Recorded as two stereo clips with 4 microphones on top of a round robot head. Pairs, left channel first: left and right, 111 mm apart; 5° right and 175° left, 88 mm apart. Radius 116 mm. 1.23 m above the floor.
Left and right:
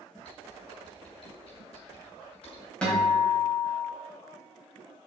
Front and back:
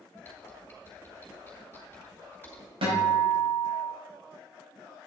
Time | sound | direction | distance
0.2 | typing on a keyboard | 60° left | 4 m
2.8 | a guitar | 170° left | 4 m